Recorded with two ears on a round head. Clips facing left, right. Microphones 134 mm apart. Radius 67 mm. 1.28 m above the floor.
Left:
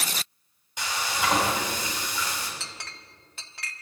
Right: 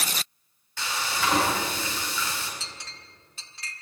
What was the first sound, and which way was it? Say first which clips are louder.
Frying: even; 15° left (ahead or behind).